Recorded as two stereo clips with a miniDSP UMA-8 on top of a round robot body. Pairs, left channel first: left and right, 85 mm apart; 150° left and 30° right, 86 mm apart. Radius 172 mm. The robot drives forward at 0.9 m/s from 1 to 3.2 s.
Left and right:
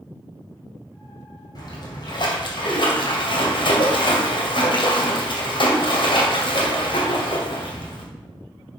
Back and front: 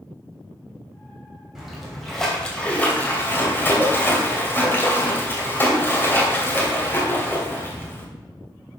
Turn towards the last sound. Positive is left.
turn(degrees=85)